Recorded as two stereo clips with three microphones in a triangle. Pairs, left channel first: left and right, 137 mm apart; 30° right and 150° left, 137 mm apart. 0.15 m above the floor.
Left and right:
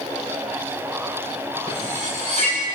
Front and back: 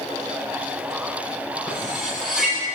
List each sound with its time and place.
1.7 s cutlery clinking: 125° right, 9.5 m